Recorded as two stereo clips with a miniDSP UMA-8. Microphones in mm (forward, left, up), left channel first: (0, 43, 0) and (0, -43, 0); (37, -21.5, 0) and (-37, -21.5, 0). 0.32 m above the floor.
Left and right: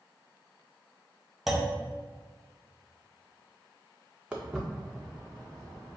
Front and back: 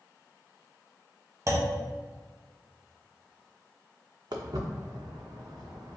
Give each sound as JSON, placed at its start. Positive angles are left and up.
{"t": 1.5, "sound": "a clunk", "azimuth_deg": 180, "distance_m": 0.7}
{"t": 4.3, "sound": "footsteps", "azimuth_deg": -170, "distance_m": 0.8}